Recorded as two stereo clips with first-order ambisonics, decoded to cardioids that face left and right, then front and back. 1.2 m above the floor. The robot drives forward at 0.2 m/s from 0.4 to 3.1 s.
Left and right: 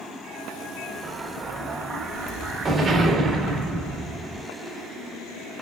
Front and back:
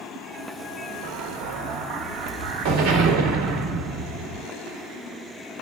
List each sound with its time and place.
1.0 s an explosion: 160° right, 0.8 m; by 4.5 s 170° right, 1.2 m